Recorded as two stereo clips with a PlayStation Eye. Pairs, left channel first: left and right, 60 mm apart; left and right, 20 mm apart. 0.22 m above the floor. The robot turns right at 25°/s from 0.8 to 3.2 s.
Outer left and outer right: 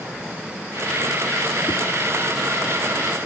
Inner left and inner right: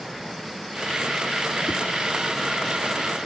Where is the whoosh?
70° left (ahead or behind), 1.1 m; by 1.8 s 75° left (ahead or behind), 1.1 m.